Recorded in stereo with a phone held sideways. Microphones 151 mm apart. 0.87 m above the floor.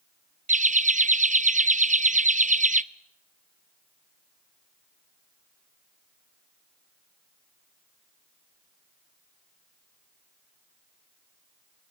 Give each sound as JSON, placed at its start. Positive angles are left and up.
{"t": 0.5, "sound": "laughter", "side_deg": -55, "distance_m": 0.7}